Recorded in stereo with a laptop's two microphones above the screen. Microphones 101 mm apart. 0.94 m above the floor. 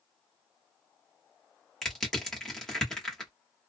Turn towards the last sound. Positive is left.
turn(degrees=5)  # may be behind; listen again after turning